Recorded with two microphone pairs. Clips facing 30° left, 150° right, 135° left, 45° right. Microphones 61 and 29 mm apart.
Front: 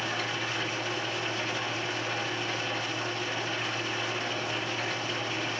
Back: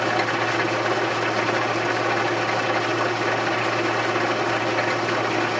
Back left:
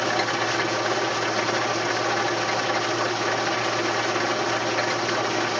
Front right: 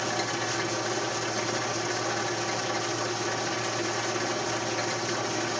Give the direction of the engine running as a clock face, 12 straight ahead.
6 o'clock.